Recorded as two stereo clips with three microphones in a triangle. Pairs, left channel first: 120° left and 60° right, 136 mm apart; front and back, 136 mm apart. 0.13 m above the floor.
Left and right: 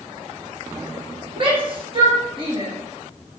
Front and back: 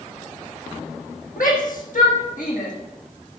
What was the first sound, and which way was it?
A shout, 10° right.